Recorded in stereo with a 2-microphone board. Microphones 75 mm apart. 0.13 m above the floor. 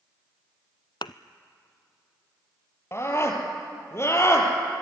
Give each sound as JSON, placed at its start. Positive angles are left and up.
{"t": 1.0, "sound": "a thud", "side_deg": 80, "distance_m": 0.6}
{"t": 2.9, "sound": "a scream", "side_deg": 35, "distance_m": 3.5}